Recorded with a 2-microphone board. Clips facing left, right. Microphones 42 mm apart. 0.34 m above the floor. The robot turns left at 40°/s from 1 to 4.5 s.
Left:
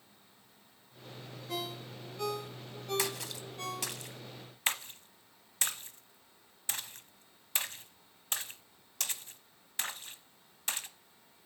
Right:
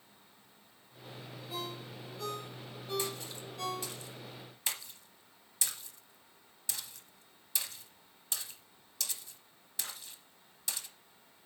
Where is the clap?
I don't hear a clap.